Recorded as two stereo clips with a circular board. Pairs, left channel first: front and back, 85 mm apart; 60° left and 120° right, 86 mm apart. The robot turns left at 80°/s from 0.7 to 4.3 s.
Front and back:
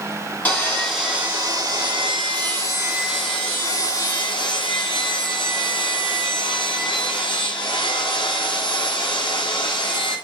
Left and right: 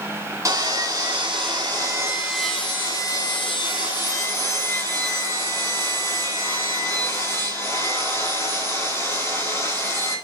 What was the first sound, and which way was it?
Sawing, 70° right.